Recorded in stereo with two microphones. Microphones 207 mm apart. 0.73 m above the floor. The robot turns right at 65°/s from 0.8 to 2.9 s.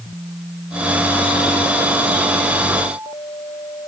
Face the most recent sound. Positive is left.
No sound to turn to.